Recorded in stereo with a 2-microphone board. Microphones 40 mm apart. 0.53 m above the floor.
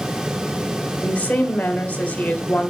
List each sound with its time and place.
1.0 s a woman speaking: 35° left (ahead or behind), 1.7 m